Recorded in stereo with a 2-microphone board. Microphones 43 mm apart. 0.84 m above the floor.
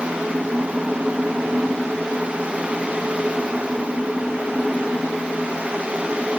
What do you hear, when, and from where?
Only background noise.